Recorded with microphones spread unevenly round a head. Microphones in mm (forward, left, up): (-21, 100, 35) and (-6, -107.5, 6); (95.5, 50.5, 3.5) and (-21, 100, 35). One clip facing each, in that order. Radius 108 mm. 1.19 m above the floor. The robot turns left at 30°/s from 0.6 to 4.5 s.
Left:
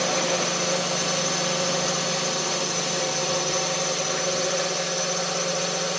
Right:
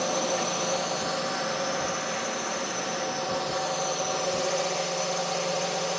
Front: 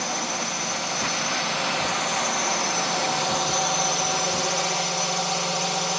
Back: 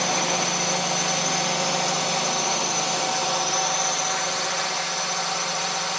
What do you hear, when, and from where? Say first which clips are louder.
0.0 s a drone: left 3 dB, back 4 dB; 145° left; by 6.0 s 30° left